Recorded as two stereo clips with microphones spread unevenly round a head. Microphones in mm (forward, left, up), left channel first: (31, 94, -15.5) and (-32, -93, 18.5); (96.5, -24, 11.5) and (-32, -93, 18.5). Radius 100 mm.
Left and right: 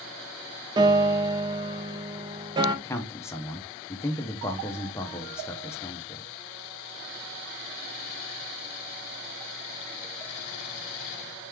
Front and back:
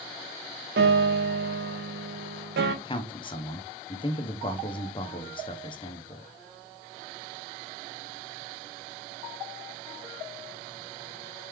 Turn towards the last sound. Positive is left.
turn(degrees=15)